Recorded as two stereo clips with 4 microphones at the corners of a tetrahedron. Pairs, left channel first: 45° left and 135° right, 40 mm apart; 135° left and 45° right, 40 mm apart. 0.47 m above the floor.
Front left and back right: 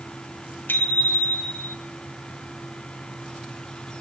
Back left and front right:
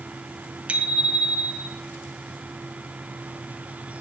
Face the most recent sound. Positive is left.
turn(degrees=15)